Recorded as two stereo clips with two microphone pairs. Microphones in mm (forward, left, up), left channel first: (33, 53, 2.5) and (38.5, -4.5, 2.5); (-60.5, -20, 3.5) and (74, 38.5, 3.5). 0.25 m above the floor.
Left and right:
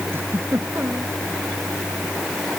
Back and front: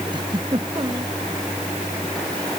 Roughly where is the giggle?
Ahead right.